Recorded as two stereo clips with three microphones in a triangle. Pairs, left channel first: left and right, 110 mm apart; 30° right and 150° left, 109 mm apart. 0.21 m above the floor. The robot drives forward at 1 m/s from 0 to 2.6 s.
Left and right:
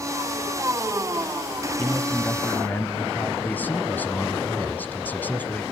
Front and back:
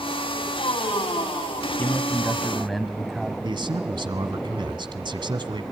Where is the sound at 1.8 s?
25° left, 1.9 m; by 3.3 s 60° left, 1.6 m.